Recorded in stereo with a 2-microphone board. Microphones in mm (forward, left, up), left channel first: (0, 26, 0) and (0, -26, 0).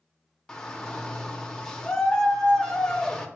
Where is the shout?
15° left (ahead or behind), 0.7 m.